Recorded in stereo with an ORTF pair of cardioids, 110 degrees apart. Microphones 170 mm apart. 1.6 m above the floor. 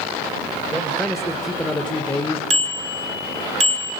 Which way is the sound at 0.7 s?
5° right.